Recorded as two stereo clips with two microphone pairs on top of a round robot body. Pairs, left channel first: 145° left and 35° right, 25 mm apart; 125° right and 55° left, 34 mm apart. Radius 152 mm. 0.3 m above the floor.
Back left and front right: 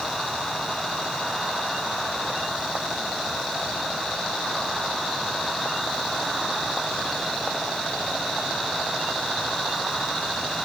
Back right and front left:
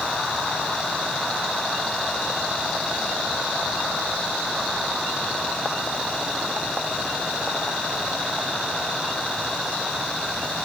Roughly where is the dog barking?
I don't hear a dog barking.